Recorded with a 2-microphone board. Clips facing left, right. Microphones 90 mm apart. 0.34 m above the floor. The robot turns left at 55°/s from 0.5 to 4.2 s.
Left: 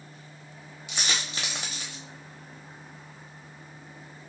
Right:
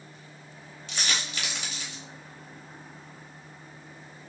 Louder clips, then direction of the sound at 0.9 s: Even; 15° left (ahead or behind).